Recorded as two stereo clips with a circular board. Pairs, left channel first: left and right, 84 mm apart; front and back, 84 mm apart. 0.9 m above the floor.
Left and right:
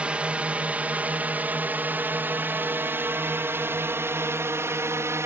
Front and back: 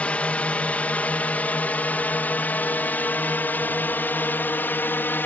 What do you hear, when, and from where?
0.0 s a drone: 40° right; by 5.3 s 55° right